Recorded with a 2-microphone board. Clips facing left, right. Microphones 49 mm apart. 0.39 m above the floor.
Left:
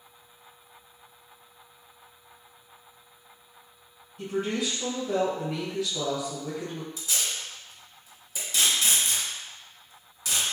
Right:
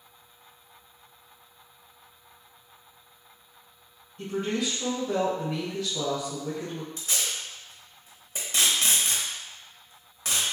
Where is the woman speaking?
Centre (ahead or behind), 1.3 m.